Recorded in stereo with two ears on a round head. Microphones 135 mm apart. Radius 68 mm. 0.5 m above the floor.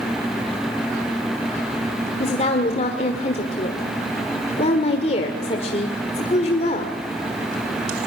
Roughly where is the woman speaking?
Left.